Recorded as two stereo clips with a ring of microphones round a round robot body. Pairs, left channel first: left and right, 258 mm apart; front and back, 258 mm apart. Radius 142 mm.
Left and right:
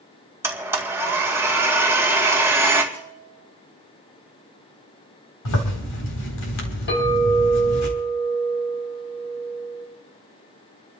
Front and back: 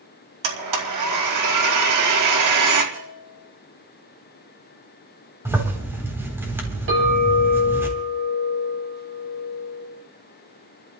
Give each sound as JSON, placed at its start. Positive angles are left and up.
{"t": 0.4, "sound": "a blender", "azimuth_deg": -170, "distance_m": 2.5}
{"t": 2.9, "sound": "a bell", "azimuth_deg": 135, "distance_m": 8.5}
{"t": 5.5, "sound": "a zipper", "azimuth_deg": 100, "distance_m": 4.0}
{"t": 6.9, "sound": "a clink", "azimuth_deg": 135, "distance_m": 10.0}